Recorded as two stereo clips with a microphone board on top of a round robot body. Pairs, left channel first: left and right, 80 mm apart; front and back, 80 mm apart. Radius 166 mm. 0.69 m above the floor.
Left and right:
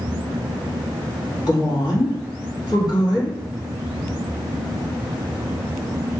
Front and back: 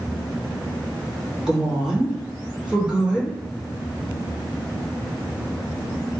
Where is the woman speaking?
105° left, 2.0 m.